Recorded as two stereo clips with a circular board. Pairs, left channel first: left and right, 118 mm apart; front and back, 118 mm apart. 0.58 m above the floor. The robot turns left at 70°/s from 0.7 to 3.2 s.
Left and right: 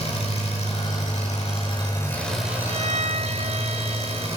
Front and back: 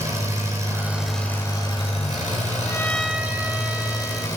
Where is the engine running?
115° left, 8 m; by 4.4 s 60° right, 8 m.